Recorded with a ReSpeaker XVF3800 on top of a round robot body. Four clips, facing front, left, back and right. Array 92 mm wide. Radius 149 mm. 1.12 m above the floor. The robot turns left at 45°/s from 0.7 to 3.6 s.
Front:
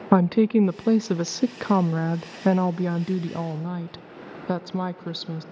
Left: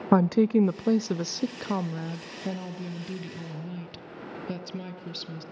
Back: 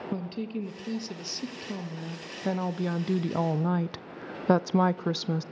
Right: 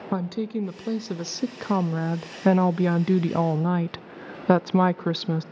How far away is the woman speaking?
About 0.5 m.